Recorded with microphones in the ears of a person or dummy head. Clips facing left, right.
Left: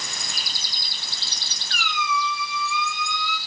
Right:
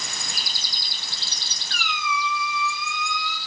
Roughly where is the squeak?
Left.